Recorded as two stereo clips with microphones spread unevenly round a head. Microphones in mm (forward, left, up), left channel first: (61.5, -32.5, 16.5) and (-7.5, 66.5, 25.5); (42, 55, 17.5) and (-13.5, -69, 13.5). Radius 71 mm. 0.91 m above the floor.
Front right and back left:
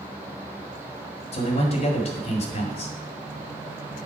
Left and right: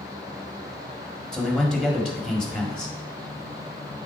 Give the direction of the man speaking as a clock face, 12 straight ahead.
1 o'clock.